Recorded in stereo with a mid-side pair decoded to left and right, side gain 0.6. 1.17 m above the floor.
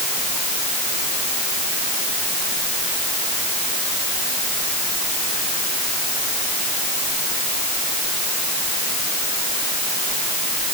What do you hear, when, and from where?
Only background noise.